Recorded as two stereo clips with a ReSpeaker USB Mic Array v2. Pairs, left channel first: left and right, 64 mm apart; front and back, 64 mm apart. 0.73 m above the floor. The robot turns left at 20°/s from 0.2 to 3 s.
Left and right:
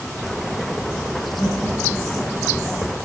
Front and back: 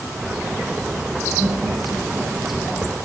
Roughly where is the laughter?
Behind left.